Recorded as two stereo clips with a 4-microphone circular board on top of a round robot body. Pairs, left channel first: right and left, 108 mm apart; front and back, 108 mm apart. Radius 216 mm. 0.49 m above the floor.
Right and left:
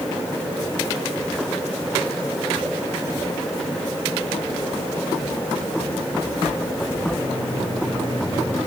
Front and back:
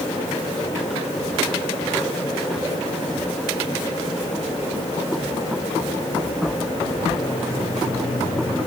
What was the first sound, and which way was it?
Only background noise.